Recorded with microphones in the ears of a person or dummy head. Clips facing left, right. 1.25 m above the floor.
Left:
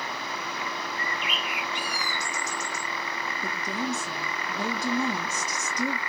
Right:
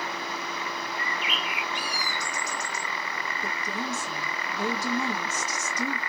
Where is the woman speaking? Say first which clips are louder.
Left 3 dB; 15° left (ahead or behind), 2.5 m.